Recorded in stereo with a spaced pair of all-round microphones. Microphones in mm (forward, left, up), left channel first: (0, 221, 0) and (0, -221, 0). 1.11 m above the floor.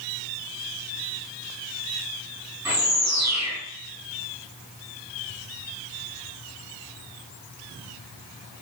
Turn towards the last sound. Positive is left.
turn(degrees=-35)  # may be behind; listen again after turning